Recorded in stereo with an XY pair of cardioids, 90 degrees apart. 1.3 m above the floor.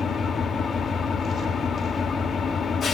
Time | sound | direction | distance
0.0 | an engine running | 60° left | 2 m